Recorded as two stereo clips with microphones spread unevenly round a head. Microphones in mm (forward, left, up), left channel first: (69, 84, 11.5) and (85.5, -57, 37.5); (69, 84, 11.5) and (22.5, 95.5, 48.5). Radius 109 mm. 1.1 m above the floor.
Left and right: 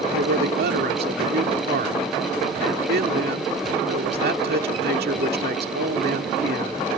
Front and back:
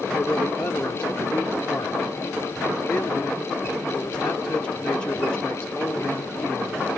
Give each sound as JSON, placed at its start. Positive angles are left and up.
{"t": 0.1, "sound": "a man speaking", "azimuth_deg": -85}